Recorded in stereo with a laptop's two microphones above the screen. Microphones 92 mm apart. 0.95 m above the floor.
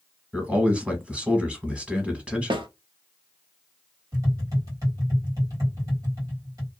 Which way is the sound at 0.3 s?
10° right (ahead or behind).